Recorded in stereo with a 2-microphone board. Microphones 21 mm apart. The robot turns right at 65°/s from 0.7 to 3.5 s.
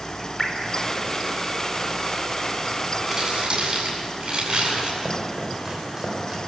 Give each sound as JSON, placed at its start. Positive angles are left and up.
{"t": 0.4, "sound": "dripping", "side_deg": 15, "distance_m": 3.5}
{"t": 3.1, "sound": "crumpling", "side_deg": -30, "distance_m": 9.5}
{"t": 5.0, "sound": "chopping", "side_deg": -15, "distance_m": 5.0}